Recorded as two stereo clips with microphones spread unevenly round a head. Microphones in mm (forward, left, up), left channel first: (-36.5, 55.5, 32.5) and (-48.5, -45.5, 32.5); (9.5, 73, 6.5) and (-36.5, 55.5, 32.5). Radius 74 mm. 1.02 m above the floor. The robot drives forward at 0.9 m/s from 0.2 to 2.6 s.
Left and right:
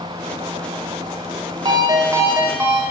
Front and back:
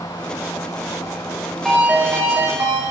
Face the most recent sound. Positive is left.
turn(degrees=-165)